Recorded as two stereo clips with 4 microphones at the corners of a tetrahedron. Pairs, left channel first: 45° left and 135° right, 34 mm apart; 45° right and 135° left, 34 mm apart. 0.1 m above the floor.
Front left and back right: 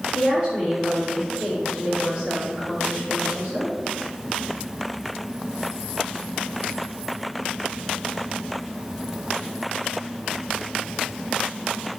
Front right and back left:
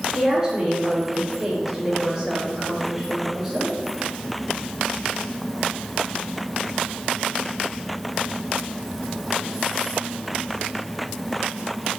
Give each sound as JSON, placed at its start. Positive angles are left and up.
{"t": 0.1, "sound": "a woman speaking", "azimuth_deg": 170, "distance_m": 1.6}